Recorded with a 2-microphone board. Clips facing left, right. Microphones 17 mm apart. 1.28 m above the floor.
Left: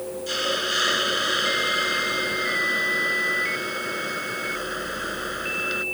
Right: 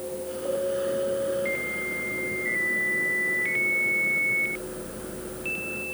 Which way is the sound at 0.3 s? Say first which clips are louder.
Left 4 dB; 85° left.